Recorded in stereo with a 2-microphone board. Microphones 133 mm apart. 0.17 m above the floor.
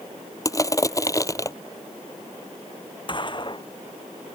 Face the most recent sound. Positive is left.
turn(degrees=35)  # may be behind; listen again after turning